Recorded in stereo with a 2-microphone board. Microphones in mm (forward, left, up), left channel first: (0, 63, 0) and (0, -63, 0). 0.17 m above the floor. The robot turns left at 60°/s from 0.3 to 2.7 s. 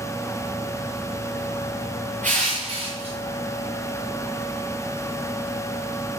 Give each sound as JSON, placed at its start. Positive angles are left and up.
{"t": 2.2, "sound": "crushing", "side_deg": -80, "distance_m": 2.5}